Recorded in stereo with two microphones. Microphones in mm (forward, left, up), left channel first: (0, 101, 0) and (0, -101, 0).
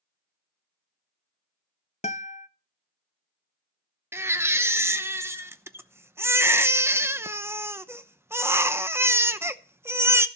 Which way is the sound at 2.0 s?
35° left (ahead or behind).